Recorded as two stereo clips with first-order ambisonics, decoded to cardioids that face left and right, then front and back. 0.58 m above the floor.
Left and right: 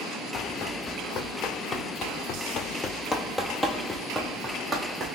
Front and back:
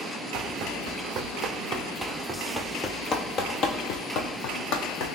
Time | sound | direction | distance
0.3 | running footsteps | 140° left | 1.4 m